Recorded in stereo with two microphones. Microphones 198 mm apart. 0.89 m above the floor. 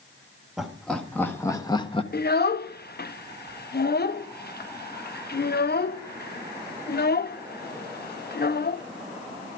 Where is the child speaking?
55° left (ahead or behind), 0.6 m.